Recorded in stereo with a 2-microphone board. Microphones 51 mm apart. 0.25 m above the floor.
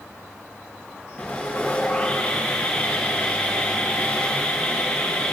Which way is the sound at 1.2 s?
30° left (ahead or behind).